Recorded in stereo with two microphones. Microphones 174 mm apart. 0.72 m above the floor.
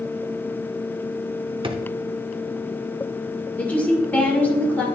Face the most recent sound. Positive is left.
turn(degrees=10)  # may be behind; listen again after turning